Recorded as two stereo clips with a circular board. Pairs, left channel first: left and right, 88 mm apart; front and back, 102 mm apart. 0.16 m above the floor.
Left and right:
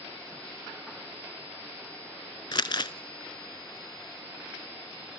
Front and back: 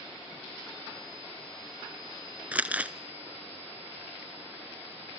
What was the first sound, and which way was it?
Crumpling, 105° left.